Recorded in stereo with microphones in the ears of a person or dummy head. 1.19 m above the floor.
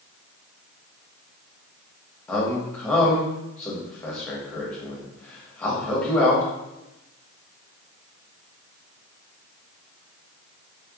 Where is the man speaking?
5° left (ahead or behind), 0.8 m.